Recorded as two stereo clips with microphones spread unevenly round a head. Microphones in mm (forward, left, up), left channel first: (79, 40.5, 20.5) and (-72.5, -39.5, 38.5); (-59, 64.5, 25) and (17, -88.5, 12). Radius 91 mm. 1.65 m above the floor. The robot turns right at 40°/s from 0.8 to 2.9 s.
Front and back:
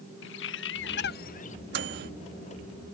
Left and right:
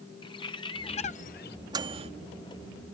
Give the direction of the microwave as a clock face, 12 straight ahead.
4 o'clock.